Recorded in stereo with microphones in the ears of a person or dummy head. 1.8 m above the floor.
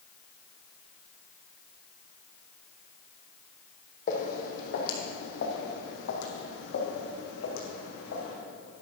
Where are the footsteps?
45° left (ahead or behind), 3.5 m; by 8.3 s 55° left (ahead or behind), 5.5 m.